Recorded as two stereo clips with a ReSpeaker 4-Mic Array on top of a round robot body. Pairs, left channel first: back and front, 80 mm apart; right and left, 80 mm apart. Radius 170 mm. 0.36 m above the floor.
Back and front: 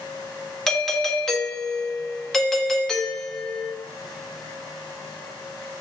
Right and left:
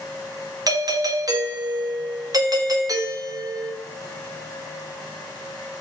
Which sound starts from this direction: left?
A doorbell, at 0.7 s.